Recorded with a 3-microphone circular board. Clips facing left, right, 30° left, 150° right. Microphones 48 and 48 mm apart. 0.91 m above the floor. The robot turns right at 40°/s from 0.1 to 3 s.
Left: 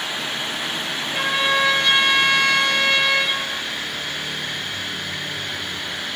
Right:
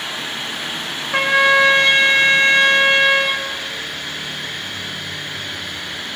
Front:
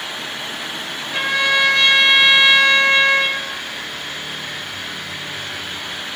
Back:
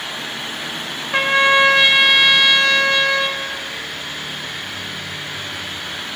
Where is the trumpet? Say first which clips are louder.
Right 7 dB, back 4 dB; 100° right, 4.5 m; by 3.5 s 25° right, 4.5 m.